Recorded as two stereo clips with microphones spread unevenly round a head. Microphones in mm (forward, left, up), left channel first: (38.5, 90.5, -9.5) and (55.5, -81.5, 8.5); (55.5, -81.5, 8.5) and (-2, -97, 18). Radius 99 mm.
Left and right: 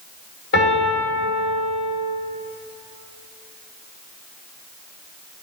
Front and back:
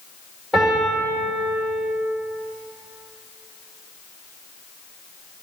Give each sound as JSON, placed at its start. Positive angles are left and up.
{"t": 0.5, "sound": "a piano", "azimuth_deg": 110, "distance_m": 2.0}